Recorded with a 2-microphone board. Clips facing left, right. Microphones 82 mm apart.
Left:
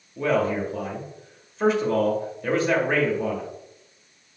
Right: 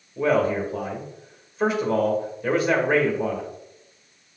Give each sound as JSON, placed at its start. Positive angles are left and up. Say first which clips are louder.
{"t": 0.2, "sound": "a man speaking", "louder": "right 2 dB", "side_deg": -5, "distance_m": 1.1}